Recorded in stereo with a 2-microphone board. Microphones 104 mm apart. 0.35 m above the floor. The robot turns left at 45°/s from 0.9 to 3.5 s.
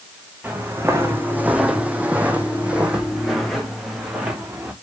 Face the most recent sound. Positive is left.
turn(degrees=-15)  # may be behind; listen again after turning